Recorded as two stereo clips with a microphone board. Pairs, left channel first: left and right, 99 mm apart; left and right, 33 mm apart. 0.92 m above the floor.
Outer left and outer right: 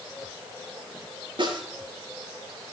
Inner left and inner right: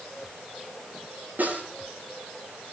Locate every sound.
1.4 s a snare drum: 55° right (ahead or behind), 6.5 m